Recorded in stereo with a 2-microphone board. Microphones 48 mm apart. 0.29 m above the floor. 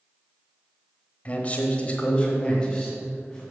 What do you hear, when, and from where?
1.2 s a man speaking: 30° left (ahead or behind), 1.1 m; by 3.4 s 15° left (ahead or behind), 2 m